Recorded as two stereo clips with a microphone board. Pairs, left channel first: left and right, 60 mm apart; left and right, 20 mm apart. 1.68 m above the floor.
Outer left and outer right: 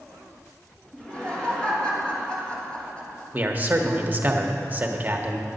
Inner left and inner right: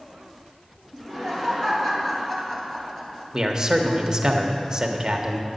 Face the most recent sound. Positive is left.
turn(degrees=-30)  # may be behind; listen again after turning